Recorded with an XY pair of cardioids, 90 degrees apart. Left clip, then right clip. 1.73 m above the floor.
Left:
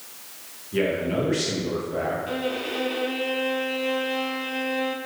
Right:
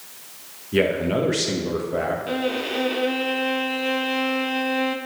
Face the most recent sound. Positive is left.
turn(degrees=-35)